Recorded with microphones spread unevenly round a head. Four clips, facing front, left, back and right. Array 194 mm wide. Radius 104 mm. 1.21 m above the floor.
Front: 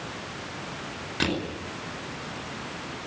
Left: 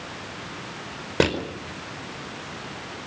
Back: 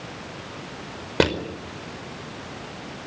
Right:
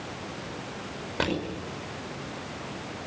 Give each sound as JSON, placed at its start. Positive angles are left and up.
{"t": 1.2, "sound": "crushing", "azimuth_deg": 135, "distance_m": 5.0}